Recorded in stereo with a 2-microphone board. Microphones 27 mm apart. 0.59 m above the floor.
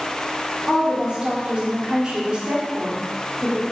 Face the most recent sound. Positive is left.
turn(degrees=-30)  # may be behind; listen again after turning